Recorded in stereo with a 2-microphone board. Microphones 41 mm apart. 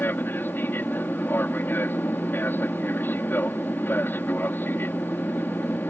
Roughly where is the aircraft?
Left.